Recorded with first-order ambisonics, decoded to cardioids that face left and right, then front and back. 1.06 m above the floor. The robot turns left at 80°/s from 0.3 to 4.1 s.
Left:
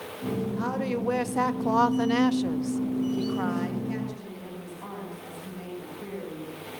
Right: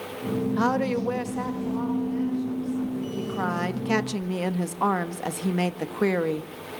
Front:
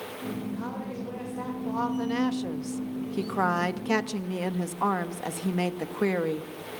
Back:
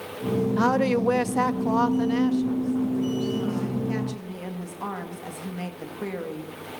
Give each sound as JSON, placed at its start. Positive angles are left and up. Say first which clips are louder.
{"t": 0.6, "sound": "a woman speaking", "louder": "right 8 dB, back 14 dB", "azimuth_deg": -145, "distance_m": 1.7}